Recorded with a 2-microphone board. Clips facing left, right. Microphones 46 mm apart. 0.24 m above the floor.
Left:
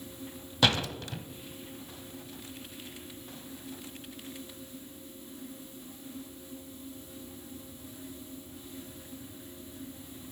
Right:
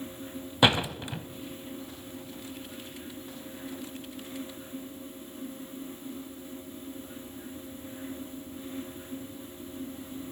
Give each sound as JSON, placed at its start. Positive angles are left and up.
{"t": 0.6, "sound": "a door slam", "side_deg": -20, "distance_m": 0.8}